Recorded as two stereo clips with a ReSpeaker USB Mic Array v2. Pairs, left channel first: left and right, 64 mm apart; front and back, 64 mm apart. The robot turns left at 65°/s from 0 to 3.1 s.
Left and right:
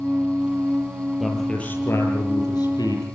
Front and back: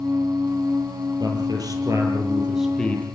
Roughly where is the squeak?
I don't hear a squeak.